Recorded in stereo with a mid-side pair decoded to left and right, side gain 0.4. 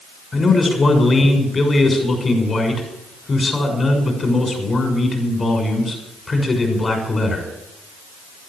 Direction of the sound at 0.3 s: 40° left.